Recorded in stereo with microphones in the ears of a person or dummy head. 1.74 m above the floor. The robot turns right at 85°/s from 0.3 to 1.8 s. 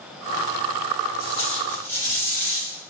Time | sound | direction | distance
1.2 | tape being pulled | 145° left | 1.8 m